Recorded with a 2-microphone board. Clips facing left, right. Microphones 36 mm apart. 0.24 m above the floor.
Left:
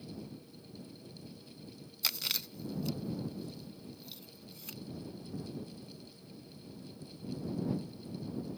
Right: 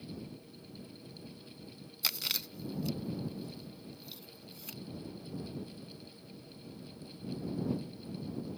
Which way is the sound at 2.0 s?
Centre (ahead or behind).